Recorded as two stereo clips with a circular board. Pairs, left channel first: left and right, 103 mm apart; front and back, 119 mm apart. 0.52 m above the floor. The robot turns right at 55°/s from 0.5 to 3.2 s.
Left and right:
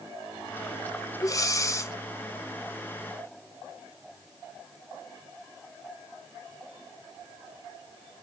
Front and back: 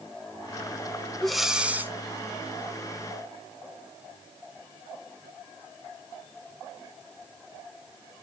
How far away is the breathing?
About 0.5 m.